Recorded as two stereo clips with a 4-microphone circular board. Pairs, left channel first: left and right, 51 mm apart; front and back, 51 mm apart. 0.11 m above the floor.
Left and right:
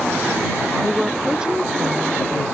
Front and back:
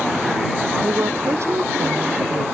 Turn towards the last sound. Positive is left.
turn(degrees=-150)